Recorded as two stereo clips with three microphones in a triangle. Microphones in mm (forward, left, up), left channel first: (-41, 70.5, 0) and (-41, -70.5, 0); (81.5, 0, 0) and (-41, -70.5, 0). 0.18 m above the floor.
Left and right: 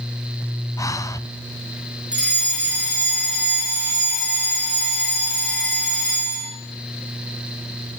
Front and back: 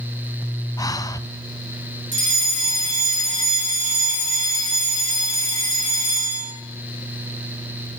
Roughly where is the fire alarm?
Behind.